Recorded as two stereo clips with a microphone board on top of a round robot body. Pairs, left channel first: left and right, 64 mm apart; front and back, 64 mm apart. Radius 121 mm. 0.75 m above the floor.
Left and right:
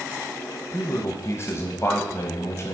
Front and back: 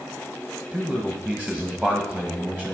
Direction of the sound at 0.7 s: 90° left.